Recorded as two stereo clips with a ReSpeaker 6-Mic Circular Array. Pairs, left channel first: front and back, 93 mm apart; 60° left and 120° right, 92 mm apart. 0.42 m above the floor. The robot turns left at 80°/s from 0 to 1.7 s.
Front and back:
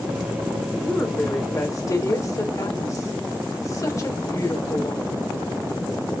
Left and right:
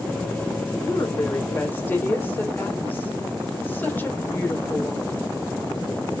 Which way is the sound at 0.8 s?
75° left.